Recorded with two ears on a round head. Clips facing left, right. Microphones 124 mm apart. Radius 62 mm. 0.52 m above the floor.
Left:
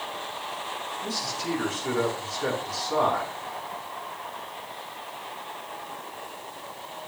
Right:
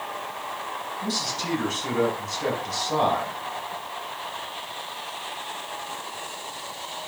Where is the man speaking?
40° right (ahead or behind), 4.5 m.